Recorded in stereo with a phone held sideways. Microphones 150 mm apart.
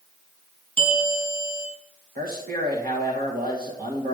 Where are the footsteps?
I don't hear footsteps.